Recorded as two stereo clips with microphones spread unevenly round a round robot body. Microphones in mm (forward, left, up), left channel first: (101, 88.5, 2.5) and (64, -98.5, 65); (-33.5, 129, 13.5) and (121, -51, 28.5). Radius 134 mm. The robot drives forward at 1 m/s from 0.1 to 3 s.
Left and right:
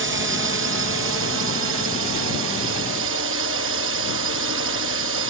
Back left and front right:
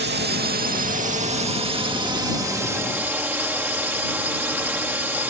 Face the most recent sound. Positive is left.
turn(degrees=-135)